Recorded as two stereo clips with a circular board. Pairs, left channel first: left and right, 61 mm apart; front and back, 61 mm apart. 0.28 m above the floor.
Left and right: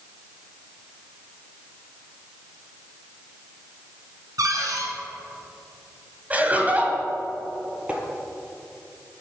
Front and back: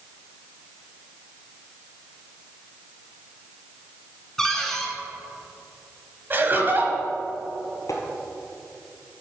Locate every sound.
4.4 s a cupboard door: 85° right, 1.5 m
6.3 s laughter: 145° right, 1.5 m
7.9 s tapping: 20° right, 1.5 m